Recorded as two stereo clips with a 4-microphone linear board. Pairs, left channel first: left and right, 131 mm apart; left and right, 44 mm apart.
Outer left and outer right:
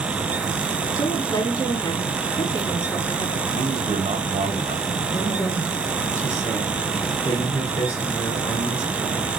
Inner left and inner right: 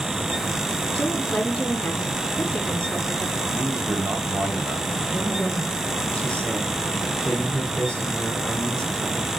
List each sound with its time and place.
0.9 s a woman speaking: 25° left (ahead or behind), 3.5 m
3.5 s a man speaking: 55° right (ahead or behind), 2.5 m
5.1 s a man speaking: 30° left (ahead or behind), 3.5 m